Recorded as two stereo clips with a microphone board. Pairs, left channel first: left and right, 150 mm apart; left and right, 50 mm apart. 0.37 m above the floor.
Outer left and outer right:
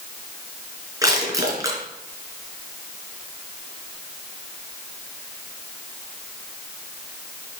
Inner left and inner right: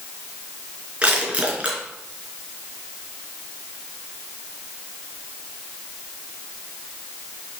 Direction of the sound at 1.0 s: 20° right (ahead or behind).